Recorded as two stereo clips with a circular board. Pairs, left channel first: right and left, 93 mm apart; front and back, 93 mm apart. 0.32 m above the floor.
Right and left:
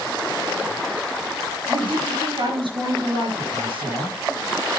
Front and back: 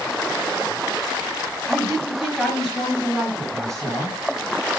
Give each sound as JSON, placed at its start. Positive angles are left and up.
{"t": 1.6, "sound": "a woman speaking", "azimuth_deg": 85, "distance_m": 5.0}